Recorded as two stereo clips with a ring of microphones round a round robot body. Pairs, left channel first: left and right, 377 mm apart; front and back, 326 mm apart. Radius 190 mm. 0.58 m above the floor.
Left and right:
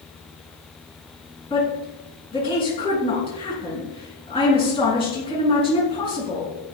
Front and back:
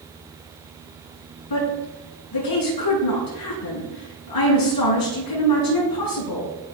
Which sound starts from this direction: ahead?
A woman speaking, at 1.5 s.